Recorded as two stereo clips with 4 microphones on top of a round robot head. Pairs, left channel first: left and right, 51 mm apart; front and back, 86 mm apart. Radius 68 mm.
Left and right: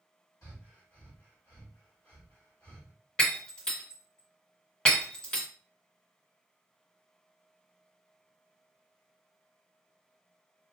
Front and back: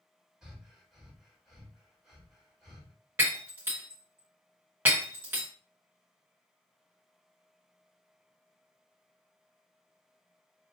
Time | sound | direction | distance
0.4 | breathing | 100° left | 1.6 m
3.2 | breaking glass | 140° left | 0.7 m